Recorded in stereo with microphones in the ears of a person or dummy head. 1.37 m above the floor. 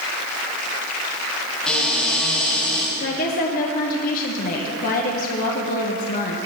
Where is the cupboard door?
5° left (ahead or behind), 5 m.